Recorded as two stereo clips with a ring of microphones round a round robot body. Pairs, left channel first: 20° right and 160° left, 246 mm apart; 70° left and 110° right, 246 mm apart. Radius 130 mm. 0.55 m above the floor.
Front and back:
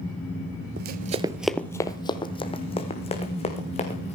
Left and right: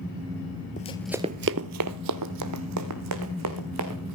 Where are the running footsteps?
120° left, 0.7 m; by 4.2 s 90° right, 3.5 m.